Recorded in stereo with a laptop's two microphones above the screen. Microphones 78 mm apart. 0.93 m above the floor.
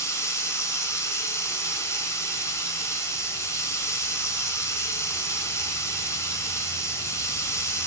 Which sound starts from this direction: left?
Running water, at 0.0 s.